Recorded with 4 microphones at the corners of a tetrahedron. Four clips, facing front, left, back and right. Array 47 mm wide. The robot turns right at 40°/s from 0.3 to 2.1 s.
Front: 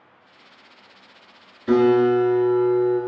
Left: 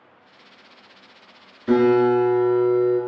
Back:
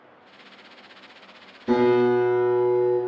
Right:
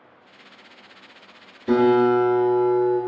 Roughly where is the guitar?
Ahead left.